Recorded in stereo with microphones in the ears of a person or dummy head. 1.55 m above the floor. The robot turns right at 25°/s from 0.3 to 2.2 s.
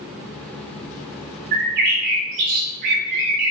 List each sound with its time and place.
1.5 s a bird: 50° right (ahead or behind), 0.7 m